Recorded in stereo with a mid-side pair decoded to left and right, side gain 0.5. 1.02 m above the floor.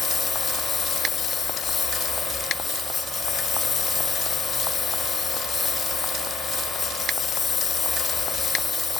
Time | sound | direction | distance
0.0 | a lawn mower | 30° left | ?